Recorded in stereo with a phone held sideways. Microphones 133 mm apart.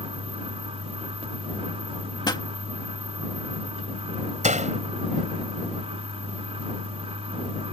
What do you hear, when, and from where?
0.0 s a fan: 50° right (ahead or behind)
2.2 s a pop: 30° left (ahead or behind)
4.4 s a door slam: 65° right (ahead or behind)